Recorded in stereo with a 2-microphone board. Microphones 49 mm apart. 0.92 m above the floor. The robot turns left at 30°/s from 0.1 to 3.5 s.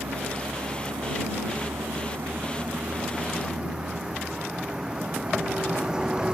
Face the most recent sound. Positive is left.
turn(degrees=-165)